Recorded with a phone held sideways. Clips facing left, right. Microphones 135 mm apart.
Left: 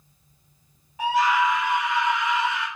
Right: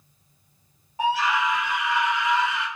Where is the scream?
35° right (ahead or behind), 0.8 m; by 2.7 s 10° left (ahead or behind), 1.3 m.